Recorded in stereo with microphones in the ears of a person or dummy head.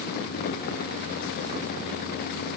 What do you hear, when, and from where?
Only background noise.